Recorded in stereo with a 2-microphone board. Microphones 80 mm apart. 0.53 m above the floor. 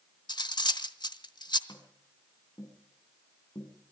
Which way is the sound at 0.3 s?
60° left (ahead or behind).